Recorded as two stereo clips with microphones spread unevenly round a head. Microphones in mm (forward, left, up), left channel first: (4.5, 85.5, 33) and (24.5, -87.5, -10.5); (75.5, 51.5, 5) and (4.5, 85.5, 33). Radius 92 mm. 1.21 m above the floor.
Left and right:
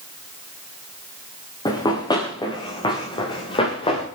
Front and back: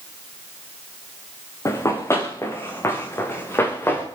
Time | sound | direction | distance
1.6 | running footsteps | 35° left | 4 m